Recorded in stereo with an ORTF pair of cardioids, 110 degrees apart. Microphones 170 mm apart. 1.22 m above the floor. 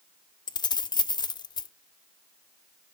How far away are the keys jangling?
About 0.6 m.